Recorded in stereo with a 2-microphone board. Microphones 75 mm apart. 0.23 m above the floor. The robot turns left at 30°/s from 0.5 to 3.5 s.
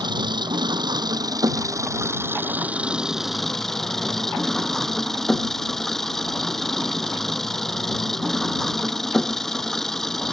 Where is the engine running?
95° right; by 10.3 s 175° left.